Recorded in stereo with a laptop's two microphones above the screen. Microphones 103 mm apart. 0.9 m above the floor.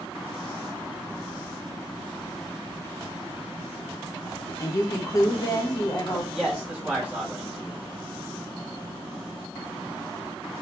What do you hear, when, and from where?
4.6 s a woman speaking: 35° left (ahead or behind), 0.7 m
6.3 s a man speaking: 15° right (ahead or behind), 1.5 m